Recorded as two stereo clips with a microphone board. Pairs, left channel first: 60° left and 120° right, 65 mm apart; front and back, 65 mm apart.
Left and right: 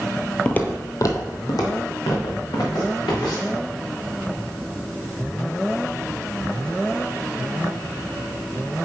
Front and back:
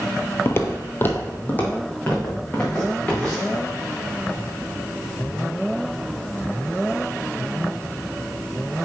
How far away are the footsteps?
About 0.7 m.